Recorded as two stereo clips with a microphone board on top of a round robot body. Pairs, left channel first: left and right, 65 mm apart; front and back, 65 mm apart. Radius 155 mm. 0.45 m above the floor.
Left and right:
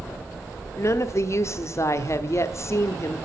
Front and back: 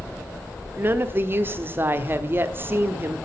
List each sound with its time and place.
0.8 s a woman speaking: 130° left, 1.3 m